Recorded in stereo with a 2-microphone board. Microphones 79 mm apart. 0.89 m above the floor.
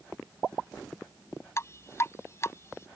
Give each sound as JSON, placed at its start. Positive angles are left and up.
{"t": 1.6, "sound": "dripping", "side_deg": 35}